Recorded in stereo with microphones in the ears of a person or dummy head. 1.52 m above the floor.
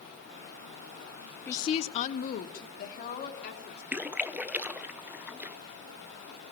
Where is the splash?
10° right (ahead or behind), 0.7 m.